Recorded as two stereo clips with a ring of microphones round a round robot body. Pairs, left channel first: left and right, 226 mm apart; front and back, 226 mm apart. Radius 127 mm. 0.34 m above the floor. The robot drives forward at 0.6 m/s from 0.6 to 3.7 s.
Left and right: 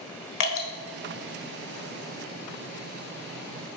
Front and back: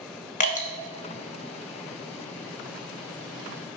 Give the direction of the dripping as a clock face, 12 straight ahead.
10 o'clock.